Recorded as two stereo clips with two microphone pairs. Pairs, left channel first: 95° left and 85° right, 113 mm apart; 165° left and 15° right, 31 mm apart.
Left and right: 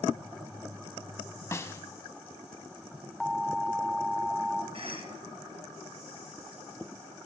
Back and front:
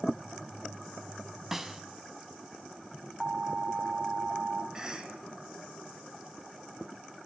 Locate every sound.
1.5 s a snare drum: 60° left, 0.7 m
3.2 s an alarm: 5° left, 0.9 m
4.7 s a cough: 85° right, 2 m